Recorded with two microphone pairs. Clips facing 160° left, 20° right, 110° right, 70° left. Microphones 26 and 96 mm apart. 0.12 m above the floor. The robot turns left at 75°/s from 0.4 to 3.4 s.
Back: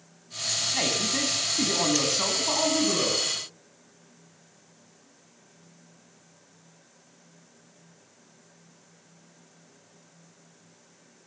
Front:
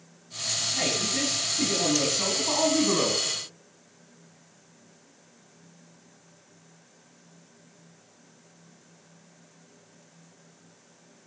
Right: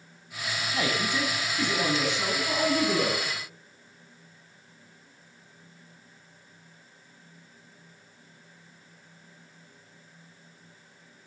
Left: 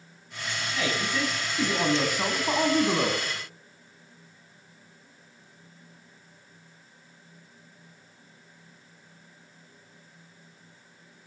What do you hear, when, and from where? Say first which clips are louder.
0.7 s a man speaking: even, even; 155° right, 5 m; by 3.3 s 15° left, 5 m